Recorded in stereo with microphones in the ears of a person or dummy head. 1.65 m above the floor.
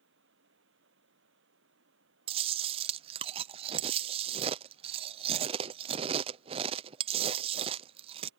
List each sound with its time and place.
0.0 s running water: 65° right (ahead or behind)
2.3 s chewing: 30° right (ahead or behind)